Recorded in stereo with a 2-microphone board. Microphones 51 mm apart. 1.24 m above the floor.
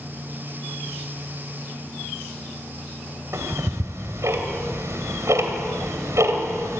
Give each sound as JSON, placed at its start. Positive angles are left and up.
{"t": 3.3, "sound": "ticking", "side_deg": -75, "distance_m": 2.5}